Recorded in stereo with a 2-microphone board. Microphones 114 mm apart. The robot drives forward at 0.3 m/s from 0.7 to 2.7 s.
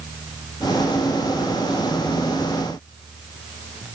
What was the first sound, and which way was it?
Only background noise.